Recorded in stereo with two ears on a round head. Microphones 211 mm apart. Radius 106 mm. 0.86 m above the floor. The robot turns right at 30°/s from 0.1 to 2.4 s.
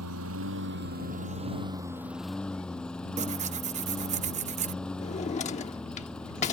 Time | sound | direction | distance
0.0 | a lawn mower | 65° right | ?
3.2 | tearing paper | 30° right (ahead or behind) | ?
5.0 | a drawer | 30° left (ahead or behind) | ?